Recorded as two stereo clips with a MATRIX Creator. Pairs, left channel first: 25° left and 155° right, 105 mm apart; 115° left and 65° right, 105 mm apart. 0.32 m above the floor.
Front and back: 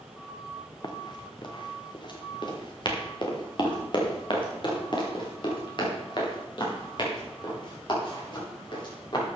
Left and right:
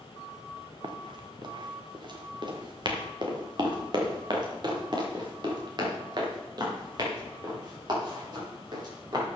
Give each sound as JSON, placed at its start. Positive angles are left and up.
{"t": 0.8, "sound": "running footsteps", "azimuth_deg": -25, "distance_m": 2.0}